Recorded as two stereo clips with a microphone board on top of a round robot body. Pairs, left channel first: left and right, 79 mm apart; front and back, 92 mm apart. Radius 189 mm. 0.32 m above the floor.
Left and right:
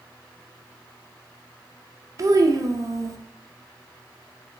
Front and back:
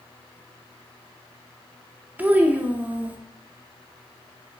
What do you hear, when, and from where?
2.2 s a child speaking: 115° right, 0.6 m